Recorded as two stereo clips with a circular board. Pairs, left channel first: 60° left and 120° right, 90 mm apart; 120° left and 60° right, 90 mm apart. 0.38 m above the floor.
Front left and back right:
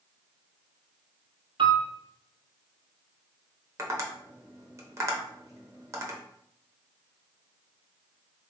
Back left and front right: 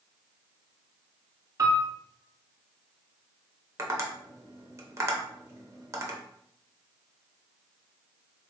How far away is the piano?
About 1.0 m.